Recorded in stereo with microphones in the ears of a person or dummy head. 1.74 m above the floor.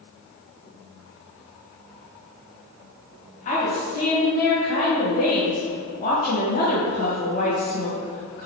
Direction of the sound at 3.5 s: 50° left (ahead or behind).